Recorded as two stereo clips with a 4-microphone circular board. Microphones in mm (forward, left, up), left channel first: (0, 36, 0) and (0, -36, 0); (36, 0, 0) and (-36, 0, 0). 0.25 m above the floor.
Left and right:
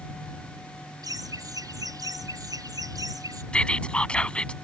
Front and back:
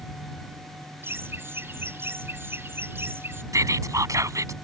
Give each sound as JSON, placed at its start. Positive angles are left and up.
{"t": 1.0, "sound": "laughter", "azimuth_deg": -120}
{"t": 3.5, "sound": "whispering", "azimuth_deg": 160}